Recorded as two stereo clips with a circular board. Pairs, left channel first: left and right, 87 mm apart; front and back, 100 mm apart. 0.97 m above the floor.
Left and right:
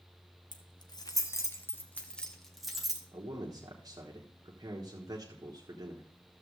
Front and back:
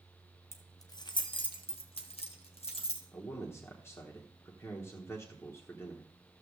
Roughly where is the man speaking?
Ahead right.